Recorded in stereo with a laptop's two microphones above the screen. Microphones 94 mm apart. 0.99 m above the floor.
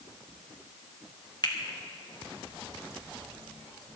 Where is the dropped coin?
I don't hear a dropped coin.